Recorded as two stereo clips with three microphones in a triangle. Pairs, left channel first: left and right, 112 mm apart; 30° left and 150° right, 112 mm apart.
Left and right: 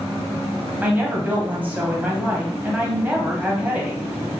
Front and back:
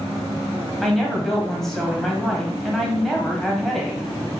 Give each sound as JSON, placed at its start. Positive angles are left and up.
{"t": 0.8, "sound": "a woman speaking", "azimuth_deg": -50, "distance_m": 0.9}